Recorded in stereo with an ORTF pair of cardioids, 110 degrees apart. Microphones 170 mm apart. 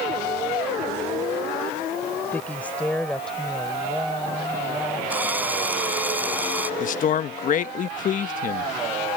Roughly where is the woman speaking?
Ahead.